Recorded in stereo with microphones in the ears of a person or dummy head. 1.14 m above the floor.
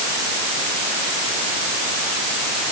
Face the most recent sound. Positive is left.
No sound to turn to.